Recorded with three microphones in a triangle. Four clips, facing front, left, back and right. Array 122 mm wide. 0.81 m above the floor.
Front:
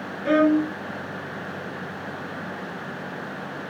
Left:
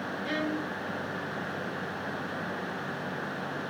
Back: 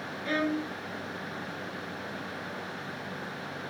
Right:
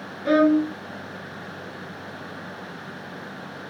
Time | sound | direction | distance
0.2 | a violin | 55° right | ?